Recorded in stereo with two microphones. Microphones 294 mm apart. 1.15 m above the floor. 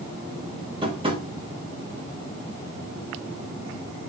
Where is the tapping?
20° right (ahead or behind), 5.5 m.